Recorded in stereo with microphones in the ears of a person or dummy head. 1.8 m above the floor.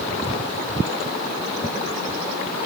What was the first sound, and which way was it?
Only background noise.